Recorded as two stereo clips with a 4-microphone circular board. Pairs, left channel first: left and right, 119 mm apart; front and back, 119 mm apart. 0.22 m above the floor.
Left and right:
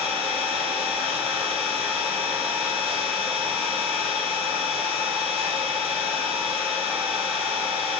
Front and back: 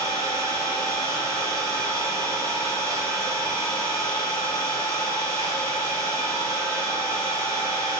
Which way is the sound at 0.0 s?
120° right.